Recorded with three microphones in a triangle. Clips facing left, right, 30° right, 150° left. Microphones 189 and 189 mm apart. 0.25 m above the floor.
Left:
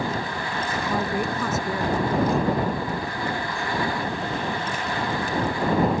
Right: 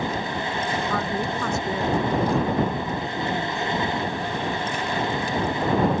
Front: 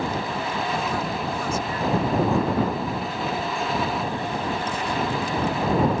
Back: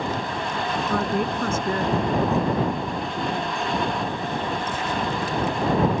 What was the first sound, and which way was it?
A woman speaking, 160° left.